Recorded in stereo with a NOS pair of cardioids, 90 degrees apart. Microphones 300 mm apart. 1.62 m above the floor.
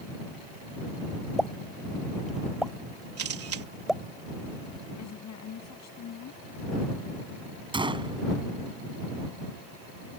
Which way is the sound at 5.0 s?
60° left.